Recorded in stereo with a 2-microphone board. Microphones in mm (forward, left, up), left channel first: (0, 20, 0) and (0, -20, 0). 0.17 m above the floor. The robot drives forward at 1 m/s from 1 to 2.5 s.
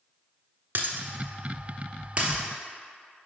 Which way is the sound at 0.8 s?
55° right (ahead or behind).